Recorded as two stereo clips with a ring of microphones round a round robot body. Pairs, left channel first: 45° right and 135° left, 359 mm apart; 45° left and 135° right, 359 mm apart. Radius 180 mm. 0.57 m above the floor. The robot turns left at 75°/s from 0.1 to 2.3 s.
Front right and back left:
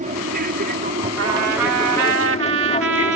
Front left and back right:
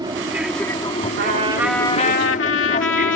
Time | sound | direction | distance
0.0 | an aircraft | 165° left | ?
1.2 | a trumpet | 175° left | ?